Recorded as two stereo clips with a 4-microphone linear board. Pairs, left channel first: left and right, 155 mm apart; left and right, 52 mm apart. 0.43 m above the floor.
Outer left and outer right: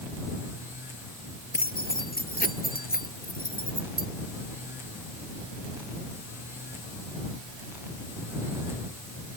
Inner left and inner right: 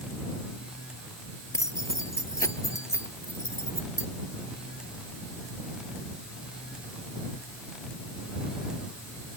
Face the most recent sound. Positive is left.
turn(degrees=70)  # may be behind; listen again after turning